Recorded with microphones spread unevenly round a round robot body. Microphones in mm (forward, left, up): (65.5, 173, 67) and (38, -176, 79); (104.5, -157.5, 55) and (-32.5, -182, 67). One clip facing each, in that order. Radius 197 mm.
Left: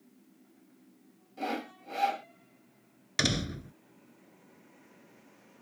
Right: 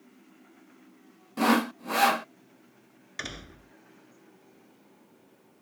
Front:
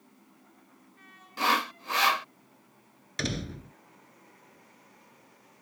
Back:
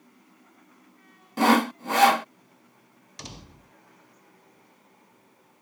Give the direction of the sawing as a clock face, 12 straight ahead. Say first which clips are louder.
Right 12 dB, back 9 dB; 4 o'clock.